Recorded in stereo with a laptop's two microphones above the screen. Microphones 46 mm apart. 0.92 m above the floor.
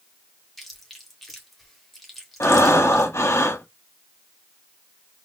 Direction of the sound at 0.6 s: 5° left (ahead or behind).